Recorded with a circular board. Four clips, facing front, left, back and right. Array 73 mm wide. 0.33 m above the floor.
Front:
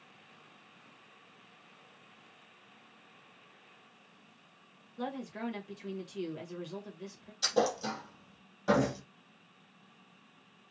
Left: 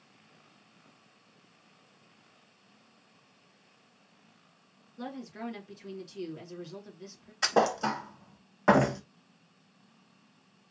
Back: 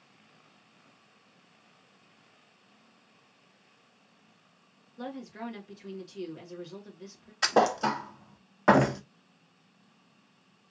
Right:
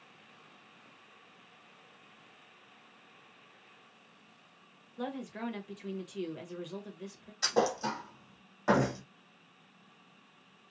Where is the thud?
155° left, 0.6 m.